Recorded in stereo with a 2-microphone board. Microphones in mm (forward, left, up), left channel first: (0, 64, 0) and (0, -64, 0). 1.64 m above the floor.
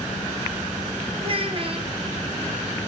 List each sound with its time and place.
1.2 s a child speaking: 40° right (ahead or behind), 0.8 m